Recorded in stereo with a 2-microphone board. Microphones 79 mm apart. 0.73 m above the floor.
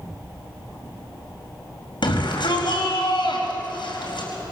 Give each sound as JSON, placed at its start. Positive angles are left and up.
{"t": 2.0, "sound": "a shout", "side_deg": 80, "distance_m": 4.5}